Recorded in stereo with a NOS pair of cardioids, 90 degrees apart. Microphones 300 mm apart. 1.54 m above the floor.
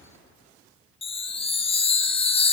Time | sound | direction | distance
1.0 | a chime | 20° left | 0.6 m